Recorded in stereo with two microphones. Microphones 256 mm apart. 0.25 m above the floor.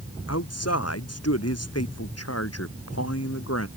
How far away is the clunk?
No clunk in this recording.